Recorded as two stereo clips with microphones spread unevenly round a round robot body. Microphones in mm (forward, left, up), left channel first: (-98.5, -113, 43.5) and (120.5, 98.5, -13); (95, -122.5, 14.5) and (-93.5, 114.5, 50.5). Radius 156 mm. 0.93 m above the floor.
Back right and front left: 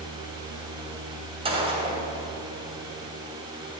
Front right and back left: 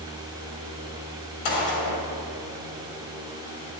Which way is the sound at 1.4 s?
30° right.